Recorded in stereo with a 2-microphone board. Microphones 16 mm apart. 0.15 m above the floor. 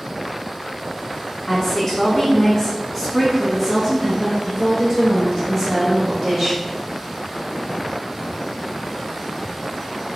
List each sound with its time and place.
1.5 s a woman speaking: 30° left (ahead or behind), 1.4 m; by 6.6 s 35° right (ahead or behind), 2.5 m